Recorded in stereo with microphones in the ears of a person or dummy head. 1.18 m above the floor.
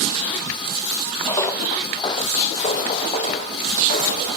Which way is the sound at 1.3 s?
10° left (ahead or behind).